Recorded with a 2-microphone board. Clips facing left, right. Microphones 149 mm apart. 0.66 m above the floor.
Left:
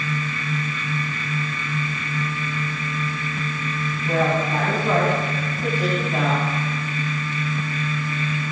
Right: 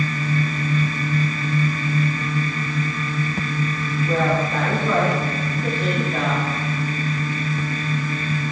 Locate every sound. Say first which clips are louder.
4.0 s a woman speaking: even; 45° left (ahead or behind), 6.5 m; by 6.5 s 20° left (ahead or behind), 4.5 m